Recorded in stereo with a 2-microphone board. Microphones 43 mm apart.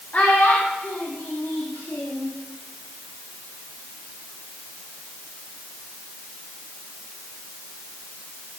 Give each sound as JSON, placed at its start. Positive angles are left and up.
{"t": 0.1, "sound": "a child speaking", "side_deg": 40, "distance_m": 1.5}